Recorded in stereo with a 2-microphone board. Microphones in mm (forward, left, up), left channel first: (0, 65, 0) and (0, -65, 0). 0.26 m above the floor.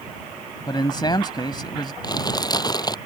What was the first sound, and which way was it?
A man speaking, 35° left (ahead or behind).